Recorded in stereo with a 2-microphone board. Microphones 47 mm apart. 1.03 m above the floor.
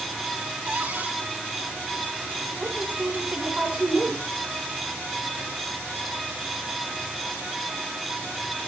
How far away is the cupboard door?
About 6 m.